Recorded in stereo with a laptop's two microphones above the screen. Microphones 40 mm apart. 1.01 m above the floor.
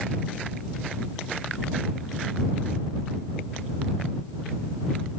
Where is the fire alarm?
No fire alarm in this recording.